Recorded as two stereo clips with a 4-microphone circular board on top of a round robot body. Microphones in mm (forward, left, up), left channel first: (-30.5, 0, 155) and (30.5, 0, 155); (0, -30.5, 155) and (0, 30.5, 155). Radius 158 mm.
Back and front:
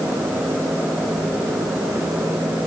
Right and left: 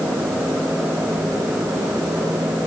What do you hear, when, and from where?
Only background noise.